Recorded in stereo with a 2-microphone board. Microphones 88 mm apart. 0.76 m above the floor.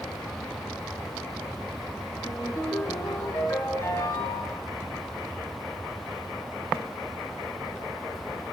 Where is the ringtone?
30° left (ahead or behind), 6 m.